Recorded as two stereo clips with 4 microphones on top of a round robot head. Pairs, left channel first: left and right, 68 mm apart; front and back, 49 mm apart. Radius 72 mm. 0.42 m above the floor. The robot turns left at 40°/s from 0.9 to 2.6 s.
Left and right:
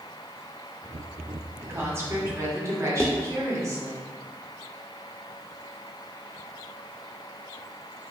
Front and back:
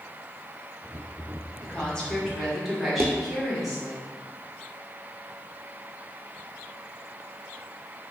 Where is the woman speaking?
50° right, 1.2 m; by 4.0 s 90° right, 1.2 m.